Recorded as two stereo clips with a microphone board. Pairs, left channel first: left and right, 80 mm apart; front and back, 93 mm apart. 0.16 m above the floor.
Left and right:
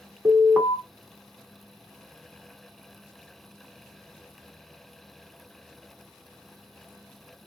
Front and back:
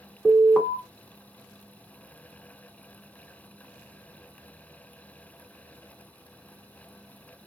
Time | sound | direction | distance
0.2 | an alarm | 80° right | 1.7 m